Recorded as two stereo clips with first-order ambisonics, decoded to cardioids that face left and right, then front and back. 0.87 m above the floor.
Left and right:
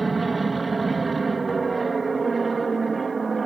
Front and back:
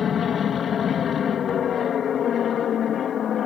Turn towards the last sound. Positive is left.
turn(degrees=-25)